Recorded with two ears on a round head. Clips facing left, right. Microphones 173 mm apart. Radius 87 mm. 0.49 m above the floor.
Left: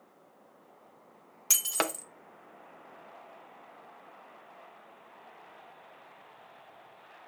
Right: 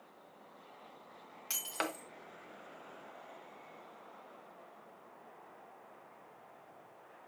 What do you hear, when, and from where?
1.5 s breaking glass: 60° left (ahead or behind), 0.6 m